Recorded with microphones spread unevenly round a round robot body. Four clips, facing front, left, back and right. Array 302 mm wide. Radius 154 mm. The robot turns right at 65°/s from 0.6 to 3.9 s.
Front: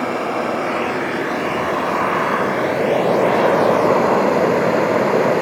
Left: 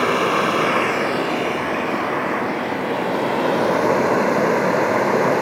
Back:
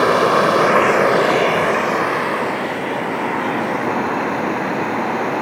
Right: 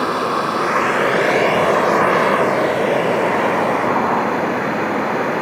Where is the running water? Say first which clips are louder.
Even, back 7 dB; 170° left, 2 m; by 5.4 s 25° left, 2 m.